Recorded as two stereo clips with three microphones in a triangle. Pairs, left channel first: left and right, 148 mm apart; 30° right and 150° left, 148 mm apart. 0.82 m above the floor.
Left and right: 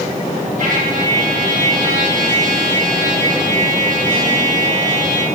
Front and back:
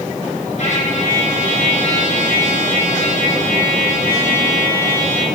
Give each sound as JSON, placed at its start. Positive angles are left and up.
{"t": 0.6, "sound": "a trumpet", "azimuth_deg": -70, "distance_m": 8.0}